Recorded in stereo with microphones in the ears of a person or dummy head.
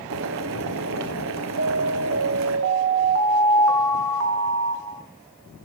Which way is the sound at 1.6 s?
85° right.